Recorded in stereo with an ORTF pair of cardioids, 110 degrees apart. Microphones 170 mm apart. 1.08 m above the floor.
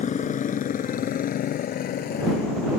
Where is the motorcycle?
45° left; by 2.8 s 65° left.